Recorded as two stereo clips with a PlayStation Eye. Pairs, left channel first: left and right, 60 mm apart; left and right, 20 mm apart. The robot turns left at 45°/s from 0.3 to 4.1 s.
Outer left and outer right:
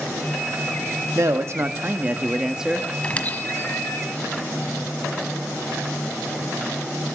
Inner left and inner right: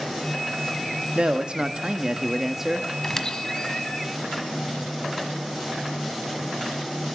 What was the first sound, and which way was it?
A man speaking, 100° right.